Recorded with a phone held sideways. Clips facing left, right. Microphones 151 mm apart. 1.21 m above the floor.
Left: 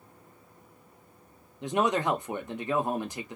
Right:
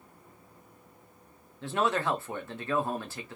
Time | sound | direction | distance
1.6 | a man speaking | 15° left (ahead or behind) | 0.5 m